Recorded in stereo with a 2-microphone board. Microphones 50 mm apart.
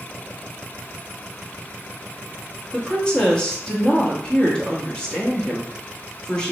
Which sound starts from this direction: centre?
A woman speaking, at 2.7 s.